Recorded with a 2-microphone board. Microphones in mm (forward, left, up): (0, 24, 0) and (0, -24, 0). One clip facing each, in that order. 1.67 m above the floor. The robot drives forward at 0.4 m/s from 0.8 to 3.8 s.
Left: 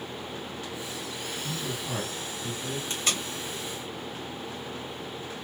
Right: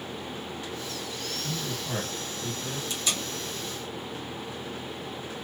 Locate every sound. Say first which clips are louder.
1.4 s a man speaking: even; 20° right (ahead or behind), 2.0 m; by 2.8 s 15° right (ahead or behind), 2.5 m
2.9 s tape being pulled: left 1 dB; 45° left (ahead or behind), 1.4 m